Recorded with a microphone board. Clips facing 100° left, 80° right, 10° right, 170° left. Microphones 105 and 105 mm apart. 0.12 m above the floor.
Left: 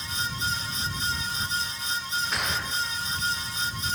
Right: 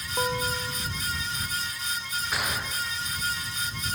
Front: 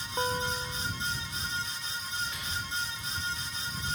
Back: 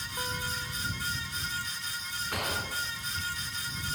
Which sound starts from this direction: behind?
A gunshot, at 2.3 s.